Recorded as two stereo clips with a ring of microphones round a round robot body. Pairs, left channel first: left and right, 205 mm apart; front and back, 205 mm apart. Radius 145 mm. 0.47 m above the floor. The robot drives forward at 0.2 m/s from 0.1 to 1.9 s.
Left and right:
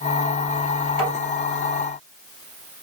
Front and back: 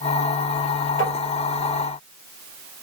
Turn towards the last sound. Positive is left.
turn(degrees=-110)